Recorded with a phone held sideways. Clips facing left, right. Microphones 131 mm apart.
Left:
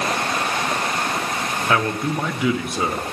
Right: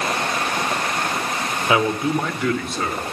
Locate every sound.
1.7 s a man speaking: 10° right (ahead or behind), 0.8 m; by 3.0 s 20° left (ahead or behind), 0.8 m